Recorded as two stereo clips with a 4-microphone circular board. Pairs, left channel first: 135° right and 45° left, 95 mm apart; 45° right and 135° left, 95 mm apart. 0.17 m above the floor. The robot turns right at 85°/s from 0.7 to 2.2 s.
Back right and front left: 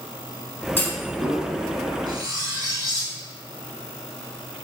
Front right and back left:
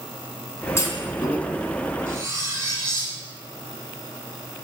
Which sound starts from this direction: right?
A clunk, at 0.8 s.